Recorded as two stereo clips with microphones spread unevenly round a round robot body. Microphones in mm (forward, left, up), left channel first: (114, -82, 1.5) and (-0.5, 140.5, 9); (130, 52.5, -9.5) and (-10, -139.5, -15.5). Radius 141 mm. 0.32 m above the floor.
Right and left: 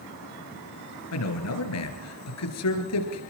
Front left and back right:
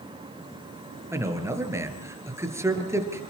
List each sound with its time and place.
1.1 s a man speaking: 50° right, 4.5 m